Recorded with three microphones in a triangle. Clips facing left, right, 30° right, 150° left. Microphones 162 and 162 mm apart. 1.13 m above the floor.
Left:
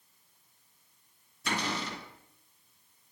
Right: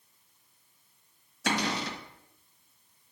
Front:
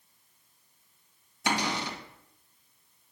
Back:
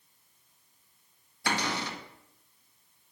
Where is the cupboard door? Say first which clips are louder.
Right 4 dB, front 2 dB; 105° right, 1.3 m.